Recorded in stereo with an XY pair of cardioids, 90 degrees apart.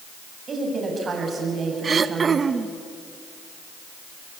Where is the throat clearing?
40° right, 1.1 m.